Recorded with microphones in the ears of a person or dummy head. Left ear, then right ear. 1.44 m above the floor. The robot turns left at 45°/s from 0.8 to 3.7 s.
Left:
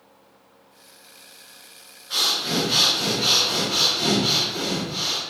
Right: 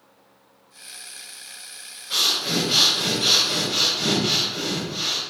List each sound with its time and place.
2.1 s breathing: 170° right, 3 m; by 5.2 s 115° left, 3 m